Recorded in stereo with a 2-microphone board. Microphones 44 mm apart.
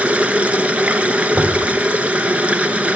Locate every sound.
0.0 s running water: 30° right (ahead or behind), 0.8 m
1.3 s knocking: 65° right (ahead or behind), 5 m